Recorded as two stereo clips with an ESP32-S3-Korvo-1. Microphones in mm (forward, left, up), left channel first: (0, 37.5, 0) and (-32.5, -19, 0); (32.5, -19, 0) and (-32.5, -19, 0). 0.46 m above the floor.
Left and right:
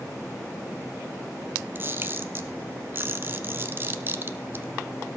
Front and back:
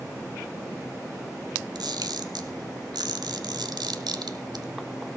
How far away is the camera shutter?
About 1.2 m.